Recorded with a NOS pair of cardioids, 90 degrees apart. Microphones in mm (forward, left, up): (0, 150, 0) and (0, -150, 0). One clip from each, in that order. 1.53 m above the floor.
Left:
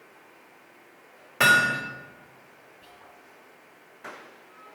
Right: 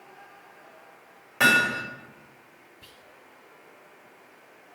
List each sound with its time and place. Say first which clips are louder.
1.4 s hammering: left 1 dB; 10° left, 5.5 m
2.8 s whispering: right 1 dB; 45° right, 1.1 m